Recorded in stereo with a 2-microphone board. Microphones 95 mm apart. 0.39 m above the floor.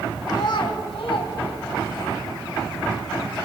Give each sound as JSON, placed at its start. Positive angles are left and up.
{"t": 0.3, "sound": "a child speaking", "side_deg": 45, "distance_m": 1.3}